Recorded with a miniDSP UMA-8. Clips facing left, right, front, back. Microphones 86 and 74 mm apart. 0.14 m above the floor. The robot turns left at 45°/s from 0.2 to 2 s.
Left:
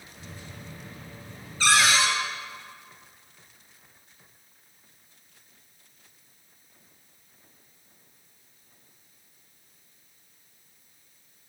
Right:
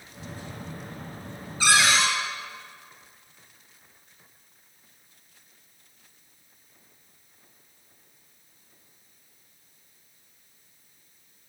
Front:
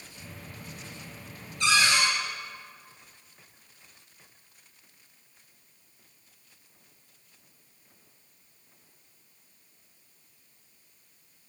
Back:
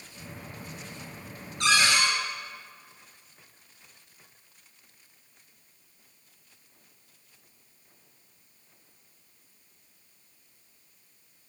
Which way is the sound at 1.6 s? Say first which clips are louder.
Even, even; 165° right.